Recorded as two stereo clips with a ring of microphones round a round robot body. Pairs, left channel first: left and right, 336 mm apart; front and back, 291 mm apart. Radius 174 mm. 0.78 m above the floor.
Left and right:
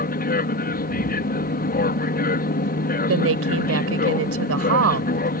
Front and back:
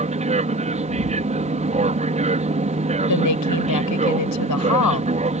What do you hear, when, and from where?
0.0 s an aircraft: 130° left
3.1 s a woman speaking: 40° right